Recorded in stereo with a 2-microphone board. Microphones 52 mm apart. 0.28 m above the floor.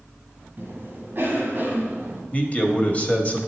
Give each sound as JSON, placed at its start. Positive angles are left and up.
{"t": 0.6, "sound": "a cough", "side_deg": -45, "distance_m": 1.6}
{"t": 2.3, "sound": "a man speaking", "side_deg": 30, "distance_m": 1.0}